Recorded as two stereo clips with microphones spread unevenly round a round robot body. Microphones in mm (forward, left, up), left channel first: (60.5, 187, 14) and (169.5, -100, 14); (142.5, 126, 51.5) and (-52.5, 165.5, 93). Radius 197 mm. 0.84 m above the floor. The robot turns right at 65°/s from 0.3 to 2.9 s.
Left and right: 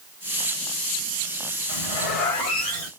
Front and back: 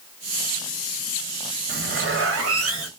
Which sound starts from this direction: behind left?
A zipper, at 1.7 s.